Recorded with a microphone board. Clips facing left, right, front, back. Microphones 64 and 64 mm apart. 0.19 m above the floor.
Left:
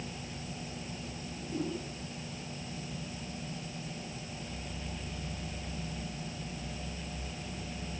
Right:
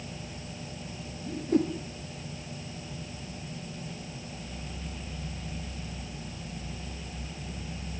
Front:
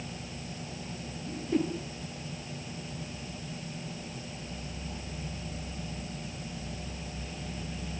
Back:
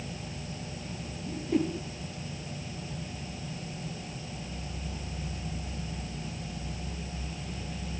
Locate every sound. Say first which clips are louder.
1.3 s a whoosh: right 11 dB, back 1 dB; 90° right, 3.5 m